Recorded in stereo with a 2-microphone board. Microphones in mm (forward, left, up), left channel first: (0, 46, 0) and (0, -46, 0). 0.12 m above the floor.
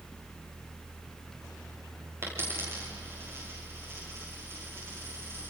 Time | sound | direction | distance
2.2 | a dropped coin | 25° right (ahead or behind) | 8.5 m